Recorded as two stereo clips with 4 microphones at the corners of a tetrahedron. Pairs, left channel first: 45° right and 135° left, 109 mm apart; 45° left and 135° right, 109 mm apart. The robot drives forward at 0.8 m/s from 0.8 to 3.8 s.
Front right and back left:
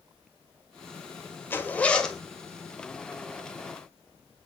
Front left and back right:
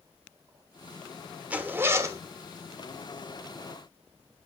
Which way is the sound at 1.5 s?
75° right.